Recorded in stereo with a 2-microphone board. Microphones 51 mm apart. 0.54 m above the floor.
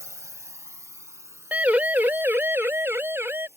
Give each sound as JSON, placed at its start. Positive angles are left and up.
{"t": 0.0, "sound": "a drone", "side_deg": -70}
{"t": 1.5, "sound": "a siren", "side_deg": -30}